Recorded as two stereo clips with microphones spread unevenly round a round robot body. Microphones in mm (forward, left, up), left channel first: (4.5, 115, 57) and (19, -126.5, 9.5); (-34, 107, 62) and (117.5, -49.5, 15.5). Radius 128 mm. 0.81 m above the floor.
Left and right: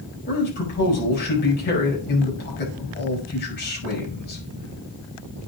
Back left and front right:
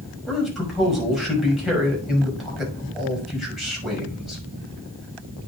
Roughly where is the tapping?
I don't hear tapping.